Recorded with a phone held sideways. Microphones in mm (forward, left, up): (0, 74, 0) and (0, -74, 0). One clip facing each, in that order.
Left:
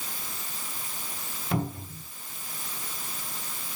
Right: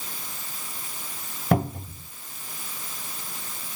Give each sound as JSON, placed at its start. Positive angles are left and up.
{"t": 1.5, "sound": "a cupboard door", "side_deg": -65, "distance_m": 2.5}